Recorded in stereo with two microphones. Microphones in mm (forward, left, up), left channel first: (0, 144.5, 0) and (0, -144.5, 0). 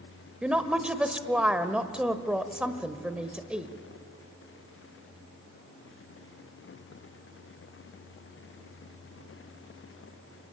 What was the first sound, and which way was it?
A woman speaking, 5° right (ahead or behind).